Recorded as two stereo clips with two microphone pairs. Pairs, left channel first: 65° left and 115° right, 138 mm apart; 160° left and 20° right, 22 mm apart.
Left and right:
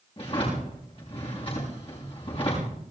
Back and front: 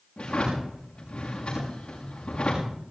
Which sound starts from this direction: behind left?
A drawer, at 0.2 s.